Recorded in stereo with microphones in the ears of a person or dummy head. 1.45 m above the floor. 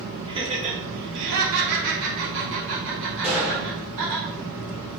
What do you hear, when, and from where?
0.3 s laughter: 20° right (ahead or behind), 0.9 m; by 4.2 s 55° right (ahead or behind), 2 m
3.2 s a gunshot: 10° right (ahead or behind), 1.2 m